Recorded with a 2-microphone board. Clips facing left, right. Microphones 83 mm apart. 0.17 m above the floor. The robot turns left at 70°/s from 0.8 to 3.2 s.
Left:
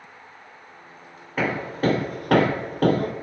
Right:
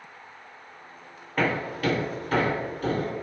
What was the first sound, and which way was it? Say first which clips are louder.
Hammering: left 2 dB; 5° left (ahead or behind).